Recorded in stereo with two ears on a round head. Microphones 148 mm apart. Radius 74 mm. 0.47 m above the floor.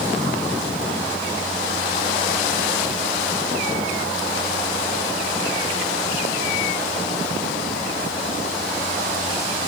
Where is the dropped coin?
I don't hear a dropped coin.